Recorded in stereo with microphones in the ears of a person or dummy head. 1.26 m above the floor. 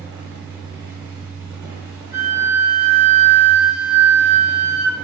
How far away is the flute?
About 0.8 m.